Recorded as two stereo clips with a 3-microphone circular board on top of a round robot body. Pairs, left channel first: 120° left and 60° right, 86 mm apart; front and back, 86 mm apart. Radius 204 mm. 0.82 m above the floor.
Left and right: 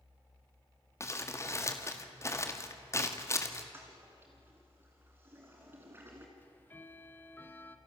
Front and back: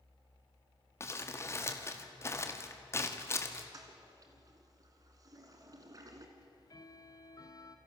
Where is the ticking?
50° left, 1.4 m.